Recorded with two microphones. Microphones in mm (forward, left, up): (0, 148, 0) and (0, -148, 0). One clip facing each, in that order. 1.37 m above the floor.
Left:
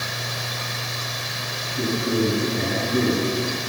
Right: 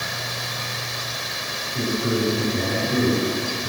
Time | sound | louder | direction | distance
1.8 | a man speaking | left 1 dB | 45° right (ahead or behind) | 5.5 m